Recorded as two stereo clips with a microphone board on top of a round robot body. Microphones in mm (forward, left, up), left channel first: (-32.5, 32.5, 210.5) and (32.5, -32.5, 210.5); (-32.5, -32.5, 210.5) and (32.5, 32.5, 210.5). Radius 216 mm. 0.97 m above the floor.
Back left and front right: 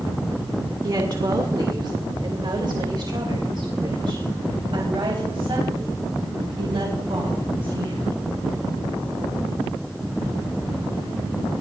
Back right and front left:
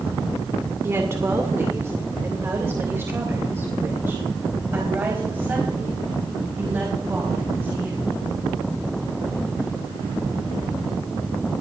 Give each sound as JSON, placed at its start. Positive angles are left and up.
{"t": 0.8, "sound": "a woman speaking", "azimuth_deg": -10, "distance_m": 2.0}